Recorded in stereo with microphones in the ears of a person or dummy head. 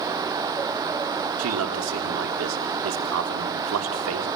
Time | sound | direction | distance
1.4 | a man speaking | 75° right (ahead or behind) | 3 m